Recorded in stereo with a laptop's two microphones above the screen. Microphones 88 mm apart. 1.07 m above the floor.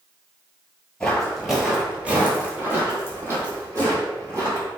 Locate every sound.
1.0 s footsteps: 10° left (ahead or behind), 1.1 m; by 4.7 s 40° right (ahead or behind), 2.5 m